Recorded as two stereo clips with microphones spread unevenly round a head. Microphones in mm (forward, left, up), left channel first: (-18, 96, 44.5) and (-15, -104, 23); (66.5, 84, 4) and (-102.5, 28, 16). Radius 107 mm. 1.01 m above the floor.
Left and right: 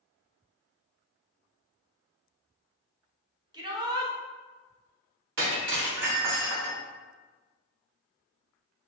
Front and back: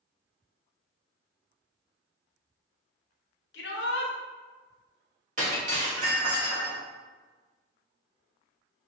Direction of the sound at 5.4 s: 115° right.